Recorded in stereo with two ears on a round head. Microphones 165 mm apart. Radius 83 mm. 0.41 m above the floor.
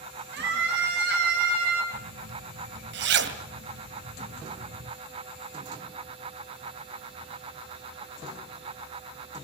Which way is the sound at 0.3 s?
75° right (ahead or behind).